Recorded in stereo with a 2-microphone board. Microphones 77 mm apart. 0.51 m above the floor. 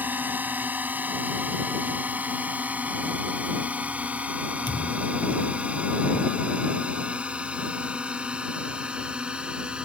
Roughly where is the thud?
Left.